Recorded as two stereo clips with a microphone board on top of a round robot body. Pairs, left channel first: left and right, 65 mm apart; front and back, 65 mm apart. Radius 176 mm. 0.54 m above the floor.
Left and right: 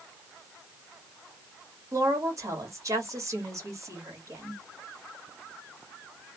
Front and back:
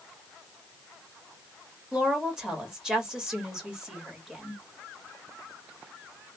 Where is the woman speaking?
105° right, 1.6 m.